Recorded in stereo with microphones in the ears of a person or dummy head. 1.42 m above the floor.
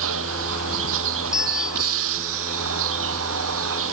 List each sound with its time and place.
0.0 s a vehicle: 65° right (ahead or behind)
1.3 s a bell: 5° right (ahead or behind)